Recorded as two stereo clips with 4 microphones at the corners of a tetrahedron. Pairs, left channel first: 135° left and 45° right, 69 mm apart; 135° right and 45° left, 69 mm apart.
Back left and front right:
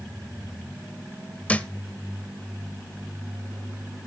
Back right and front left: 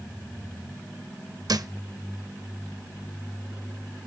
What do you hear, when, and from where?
1.5 s a thud: 65° left, 0.5 m